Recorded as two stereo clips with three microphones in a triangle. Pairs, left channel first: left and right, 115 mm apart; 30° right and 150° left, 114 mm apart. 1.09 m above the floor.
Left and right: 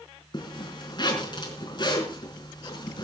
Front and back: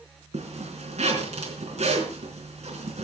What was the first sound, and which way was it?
A zipper, 135° left.